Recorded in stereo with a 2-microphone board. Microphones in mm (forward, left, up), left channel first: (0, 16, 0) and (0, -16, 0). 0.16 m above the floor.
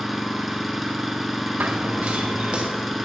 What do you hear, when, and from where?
0.0 s an engine running: 5° right (ahead or behind), 0.9 m
1.6 s running footsteps: 60° right (ahead or behind), 1.0 m; by 2.6 s 35° right (ahead or behind), 1.7 m